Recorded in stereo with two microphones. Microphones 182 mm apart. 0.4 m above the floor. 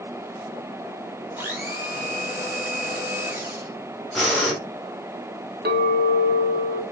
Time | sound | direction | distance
1.4 | a blender | 15° right (ahead or behind) | 1.0 m
4.2 | breathing | centre (ahead or behind) | 1.1 m
5.7 | a clink | 70° right (ahead or behind) | 1.0 m